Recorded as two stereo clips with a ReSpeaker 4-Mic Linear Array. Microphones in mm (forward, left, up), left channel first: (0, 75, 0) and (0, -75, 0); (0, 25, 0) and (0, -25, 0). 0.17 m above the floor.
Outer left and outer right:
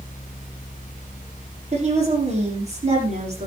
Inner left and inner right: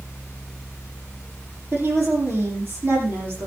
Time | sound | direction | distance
1.7 | a woman speaking | 50° right (ahead or behind) | 7 m